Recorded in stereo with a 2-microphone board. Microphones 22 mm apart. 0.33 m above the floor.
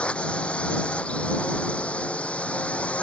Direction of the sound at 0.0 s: 60° left (ahead or behind).